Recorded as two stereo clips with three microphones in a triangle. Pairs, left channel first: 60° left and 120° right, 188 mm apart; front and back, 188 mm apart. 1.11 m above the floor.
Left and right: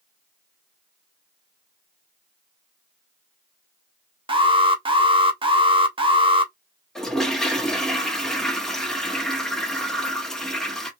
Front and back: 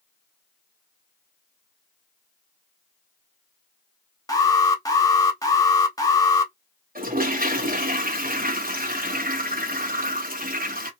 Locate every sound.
4.3 s an alarm: 65° right, 0.7 m
7.0 s a toilet flushing: 145° left, 0.8 m